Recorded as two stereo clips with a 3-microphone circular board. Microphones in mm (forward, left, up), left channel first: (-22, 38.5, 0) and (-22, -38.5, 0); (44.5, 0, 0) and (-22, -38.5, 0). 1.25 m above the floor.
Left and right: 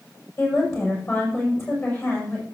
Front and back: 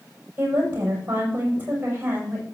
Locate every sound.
0.4 s a woman speaking: 145° left, 6 m